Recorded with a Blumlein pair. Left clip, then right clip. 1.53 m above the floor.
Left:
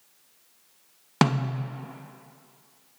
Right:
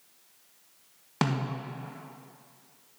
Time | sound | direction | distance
1.2 | a snare drum | 20° left | 0.5 m